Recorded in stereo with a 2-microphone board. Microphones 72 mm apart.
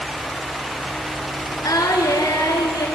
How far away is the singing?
About 2.5 m.